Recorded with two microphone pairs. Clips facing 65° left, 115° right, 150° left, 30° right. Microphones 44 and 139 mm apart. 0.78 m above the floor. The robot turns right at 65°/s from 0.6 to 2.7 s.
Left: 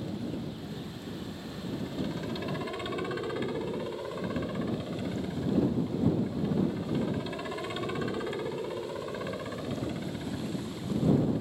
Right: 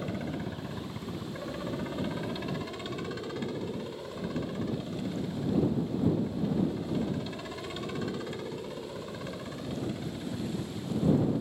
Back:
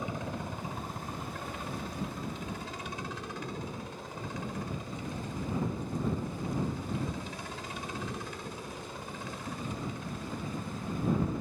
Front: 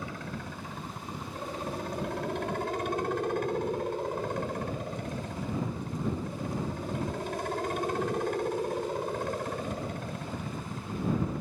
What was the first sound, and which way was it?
A helicopter, 145° right.